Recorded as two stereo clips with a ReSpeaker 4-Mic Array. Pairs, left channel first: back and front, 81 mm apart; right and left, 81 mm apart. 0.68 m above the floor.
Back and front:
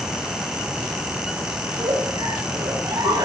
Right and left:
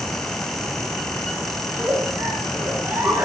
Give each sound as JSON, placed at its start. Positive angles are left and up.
{"t": 1.6, "sound": "a giggle", "azimuth_deg": 20, "distance_m": 6.0}